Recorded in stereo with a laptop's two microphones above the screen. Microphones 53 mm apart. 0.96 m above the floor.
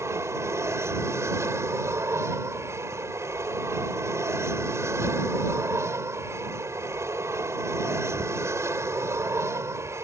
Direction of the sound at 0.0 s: 60° right (ahead or behind).